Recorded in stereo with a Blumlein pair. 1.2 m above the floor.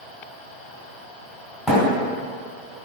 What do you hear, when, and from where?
1.7 s a thud: 10° left, 1.7 m